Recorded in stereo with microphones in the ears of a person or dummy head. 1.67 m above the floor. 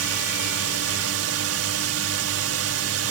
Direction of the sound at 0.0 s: 75° right (ahead or behind).